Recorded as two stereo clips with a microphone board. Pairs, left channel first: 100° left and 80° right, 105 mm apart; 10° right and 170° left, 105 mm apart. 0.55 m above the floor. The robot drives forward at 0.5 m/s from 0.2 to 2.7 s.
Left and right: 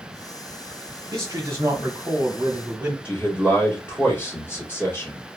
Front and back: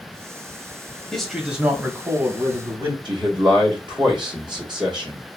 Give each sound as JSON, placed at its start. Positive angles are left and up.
{"t": 1.1, "sound": "a man speaking", "azimuth_deg": -90, "distance_m": 0.8}
{"t": 3.0, "sound": "a man speaking", "azimuth_deg": 160, "distance_m": 1.2}